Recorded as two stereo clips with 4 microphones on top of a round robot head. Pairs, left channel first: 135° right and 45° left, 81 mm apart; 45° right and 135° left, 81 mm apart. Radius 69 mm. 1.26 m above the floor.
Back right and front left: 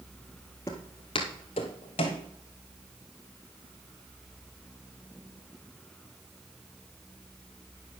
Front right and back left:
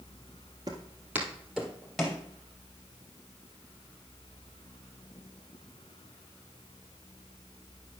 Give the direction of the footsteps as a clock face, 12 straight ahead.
6 o'clock.